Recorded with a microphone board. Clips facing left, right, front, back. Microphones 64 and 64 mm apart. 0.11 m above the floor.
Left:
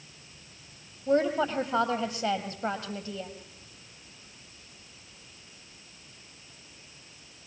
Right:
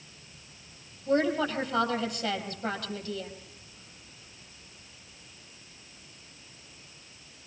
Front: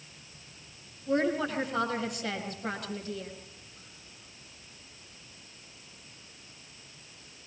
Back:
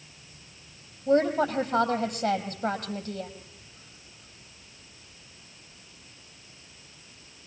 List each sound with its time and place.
1.1 s a woman speaking: 150° left, 3.5 m